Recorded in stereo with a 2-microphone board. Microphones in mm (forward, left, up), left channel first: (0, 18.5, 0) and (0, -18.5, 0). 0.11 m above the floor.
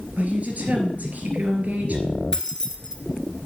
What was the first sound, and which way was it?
A woman speaking, 45° right (ahead or behind).